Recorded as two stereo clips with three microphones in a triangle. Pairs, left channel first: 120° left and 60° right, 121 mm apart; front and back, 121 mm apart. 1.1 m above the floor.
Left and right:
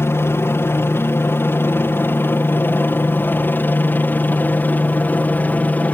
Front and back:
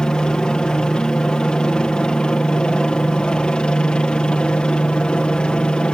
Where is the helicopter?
75° left; by 5.9 s 70° left.